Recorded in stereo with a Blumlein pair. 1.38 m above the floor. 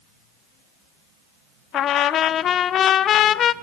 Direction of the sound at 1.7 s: 30° left.